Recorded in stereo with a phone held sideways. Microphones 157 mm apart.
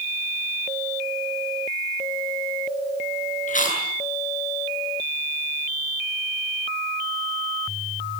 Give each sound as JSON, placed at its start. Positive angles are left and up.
{"t": 3.5, "sound": "chewing", "side_deg": 55, "distance_m": 8.5}